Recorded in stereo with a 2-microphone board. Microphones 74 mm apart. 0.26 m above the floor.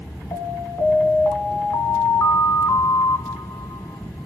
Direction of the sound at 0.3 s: 55° left (ahead or behind).